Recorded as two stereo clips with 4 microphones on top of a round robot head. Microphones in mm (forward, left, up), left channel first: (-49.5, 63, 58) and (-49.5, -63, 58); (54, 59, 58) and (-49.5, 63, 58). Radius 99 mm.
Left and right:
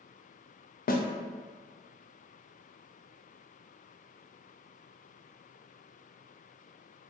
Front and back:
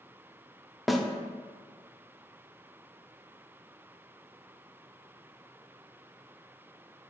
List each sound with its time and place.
0.9 s a snare drum: 90° left, 0.6 m